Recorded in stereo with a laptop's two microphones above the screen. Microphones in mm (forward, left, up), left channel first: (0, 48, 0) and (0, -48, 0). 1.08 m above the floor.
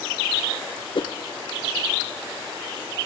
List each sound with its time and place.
0.9 s a whoosh: 60° left (ahead or behind), 0.7 m